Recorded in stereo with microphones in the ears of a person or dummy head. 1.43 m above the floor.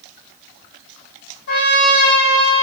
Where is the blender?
No blender in this recording.